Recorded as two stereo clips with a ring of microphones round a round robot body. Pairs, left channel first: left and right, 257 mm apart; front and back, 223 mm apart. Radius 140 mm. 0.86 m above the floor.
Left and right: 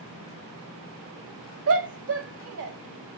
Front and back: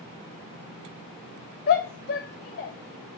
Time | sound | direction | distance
1.7 | a shout | 55° right | 0.9 m